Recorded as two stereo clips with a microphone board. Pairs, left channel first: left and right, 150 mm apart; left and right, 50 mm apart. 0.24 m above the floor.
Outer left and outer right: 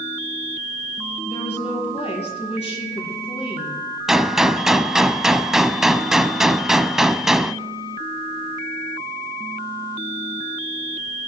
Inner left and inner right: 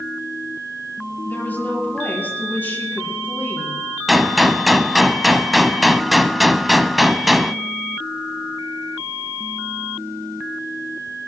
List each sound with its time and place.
1.2 s a woman speaking: 45° left (ahead or behind), 6.5 m
4.1 s a gunshot: centre (ahead or behind), 0.5 m